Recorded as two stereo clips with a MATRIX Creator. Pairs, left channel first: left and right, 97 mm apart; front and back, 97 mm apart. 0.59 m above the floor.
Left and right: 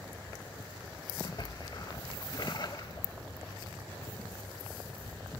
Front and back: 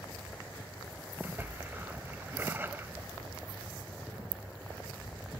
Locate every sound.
1.2 s a splash: 115° left, 0.6 m